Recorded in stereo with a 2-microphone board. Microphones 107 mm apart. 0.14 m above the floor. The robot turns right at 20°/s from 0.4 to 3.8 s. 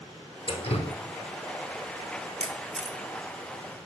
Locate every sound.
0.5 s dripping: 55° left (ahead or behind), 1.0 m; by 0.9 s 60° left (ahead or behind), 1.0 m
2.4 s a camera shutter: 70° right (ahead or behind), 1.0 m